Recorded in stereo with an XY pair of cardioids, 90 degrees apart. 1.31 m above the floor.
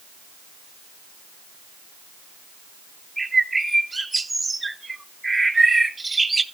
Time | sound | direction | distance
3.2 | a bird | 20° right | 0.7 m